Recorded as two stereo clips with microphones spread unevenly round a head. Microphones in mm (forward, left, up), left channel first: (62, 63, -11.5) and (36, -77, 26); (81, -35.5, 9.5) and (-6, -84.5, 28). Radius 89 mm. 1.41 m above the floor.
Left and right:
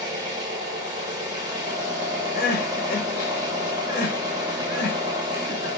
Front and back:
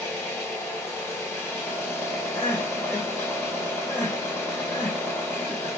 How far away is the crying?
About 0.8 m.